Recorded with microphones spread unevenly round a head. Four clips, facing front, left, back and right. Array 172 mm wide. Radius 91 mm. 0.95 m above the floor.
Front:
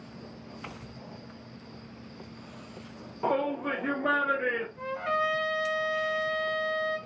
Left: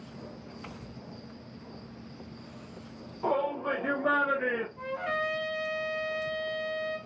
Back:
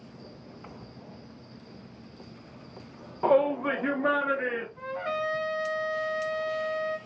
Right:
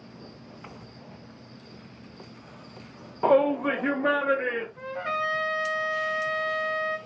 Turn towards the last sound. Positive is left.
turn(degrees=-105)